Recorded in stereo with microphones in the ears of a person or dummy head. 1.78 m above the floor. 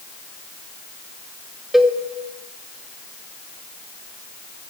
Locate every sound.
1.7 s a cowbell: 5° right (ahead or behind), 0.7 m